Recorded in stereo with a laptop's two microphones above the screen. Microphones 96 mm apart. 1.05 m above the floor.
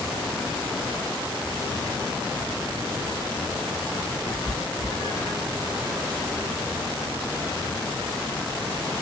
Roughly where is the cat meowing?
Left.